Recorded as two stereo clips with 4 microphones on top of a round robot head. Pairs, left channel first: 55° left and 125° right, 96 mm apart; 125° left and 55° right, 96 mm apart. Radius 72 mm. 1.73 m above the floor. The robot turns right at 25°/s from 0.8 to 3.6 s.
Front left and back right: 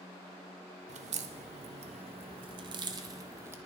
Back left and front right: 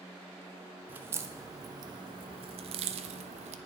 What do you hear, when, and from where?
0.9 s a crack: 125° right, 0.6 m; by 3.6 s 60° right, 0.6 m